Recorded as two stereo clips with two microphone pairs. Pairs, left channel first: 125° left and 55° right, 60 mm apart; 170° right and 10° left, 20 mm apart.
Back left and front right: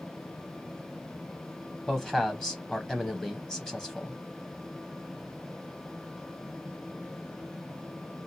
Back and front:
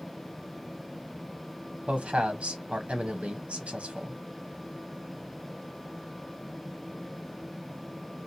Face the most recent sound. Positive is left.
turn(degrees=45)